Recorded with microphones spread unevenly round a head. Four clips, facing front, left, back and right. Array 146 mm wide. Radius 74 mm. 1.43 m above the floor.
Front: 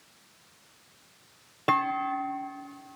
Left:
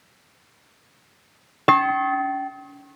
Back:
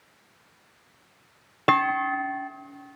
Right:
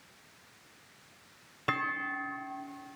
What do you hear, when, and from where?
1.7 s a clunk: 105° left, 0.8 m